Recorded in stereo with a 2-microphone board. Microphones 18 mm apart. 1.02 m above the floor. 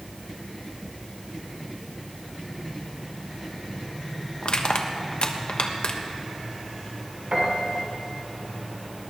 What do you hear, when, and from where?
4.4 s crushing: 60° left (ahead or behind), 1.2 m
7.3 s a piano: 85° right, 2.5 m